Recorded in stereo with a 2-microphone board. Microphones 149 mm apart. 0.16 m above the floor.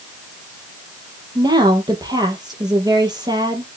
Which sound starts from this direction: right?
A woman speaking, at 1.4 s.